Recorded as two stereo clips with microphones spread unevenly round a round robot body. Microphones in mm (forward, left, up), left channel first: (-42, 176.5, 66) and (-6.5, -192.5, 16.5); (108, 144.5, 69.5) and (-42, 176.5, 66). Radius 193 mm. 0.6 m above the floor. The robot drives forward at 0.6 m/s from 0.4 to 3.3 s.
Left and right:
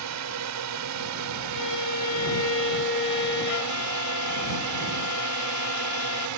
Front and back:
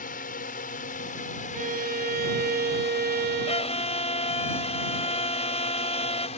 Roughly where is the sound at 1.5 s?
Behind left.